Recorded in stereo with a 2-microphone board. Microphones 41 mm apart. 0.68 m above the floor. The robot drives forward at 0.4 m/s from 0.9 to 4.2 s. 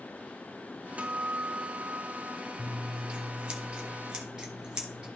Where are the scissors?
30° right (ahead or behind), 1.1 m; by 5.1 s 20° right (ahead or behind), 1.7 m.